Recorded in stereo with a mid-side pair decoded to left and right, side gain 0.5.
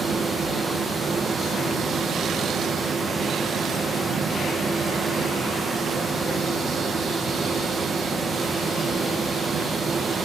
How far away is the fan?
About 1.5 m.